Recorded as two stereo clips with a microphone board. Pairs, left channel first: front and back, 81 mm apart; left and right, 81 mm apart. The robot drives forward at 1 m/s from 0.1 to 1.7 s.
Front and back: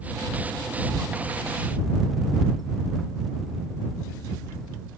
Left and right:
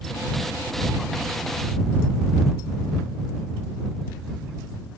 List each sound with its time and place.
Only background noise.